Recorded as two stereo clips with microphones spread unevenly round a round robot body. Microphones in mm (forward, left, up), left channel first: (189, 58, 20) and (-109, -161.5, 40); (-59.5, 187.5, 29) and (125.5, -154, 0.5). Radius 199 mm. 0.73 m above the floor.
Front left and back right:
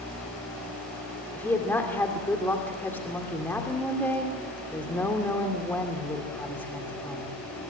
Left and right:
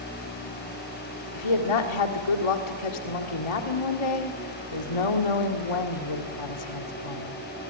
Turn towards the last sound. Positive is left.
turn(degrees=120)